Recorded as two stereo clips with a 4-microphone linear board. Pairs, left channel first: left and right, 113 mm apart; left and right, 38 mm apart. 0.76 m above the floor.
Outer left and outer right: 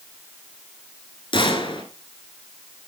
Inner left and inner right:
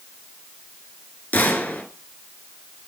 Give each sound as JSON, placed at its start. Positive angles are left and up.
{"t": 1.3, "sound": "a gunshot", "side_deg": 50, "distance_m": 1.6}